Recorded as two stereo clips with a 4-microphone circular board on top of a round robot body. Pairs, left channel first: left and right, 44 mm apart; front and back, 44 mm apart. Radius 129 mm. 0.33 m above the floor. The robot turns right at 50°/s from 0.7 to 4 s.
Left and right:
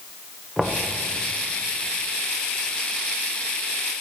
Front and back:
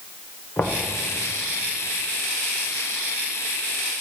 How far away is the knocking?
About 1.5 m.